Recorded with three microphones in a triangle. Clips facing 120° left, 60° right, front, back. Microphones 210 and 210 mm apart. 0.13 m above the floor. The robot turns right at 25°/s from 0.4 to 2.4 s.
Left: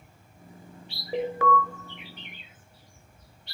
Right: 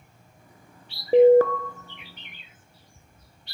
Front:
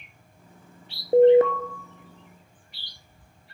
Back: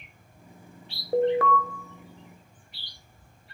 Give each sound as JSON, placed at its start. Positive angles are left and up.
{"t": 1.1, "sound": "an alarm", "azimuth_deg": -60, "distance_m": 1.3}